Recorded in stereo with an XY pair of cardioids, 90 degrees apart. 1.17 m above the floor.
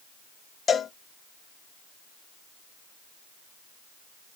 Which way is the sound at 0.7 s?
50° left.